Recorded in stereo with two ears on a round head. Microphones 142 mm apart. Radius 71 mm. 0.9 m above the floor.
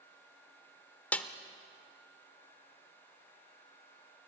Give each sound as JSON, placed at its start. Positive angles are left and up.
{"t": 1.1, "sound": "a snare drum", "side_deg": 10, "distance_m": 0.8}